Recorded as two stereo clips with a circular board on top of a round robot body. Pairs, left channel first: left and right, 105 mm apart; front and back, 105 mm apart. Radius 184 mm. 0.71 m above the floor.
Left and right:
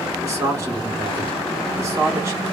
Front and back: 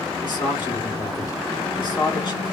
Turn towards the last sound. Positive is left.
turn(degrees=-40)